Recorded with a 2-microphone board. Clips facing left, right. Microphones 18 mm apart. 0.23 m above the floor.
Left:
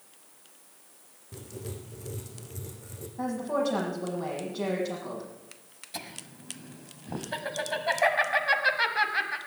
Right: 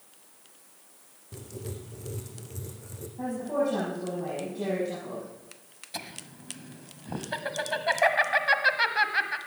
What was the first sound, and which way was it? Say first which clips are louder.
Writing: right 1 dB; 5° right (ahead or behind).